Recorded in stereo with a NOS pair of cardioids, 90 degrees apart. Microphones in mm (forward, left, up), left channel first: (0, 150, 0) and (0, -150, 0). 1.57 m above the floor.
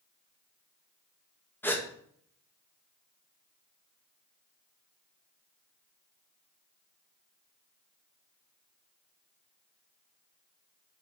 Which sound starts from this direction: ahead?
A gasp, at 1.6 s.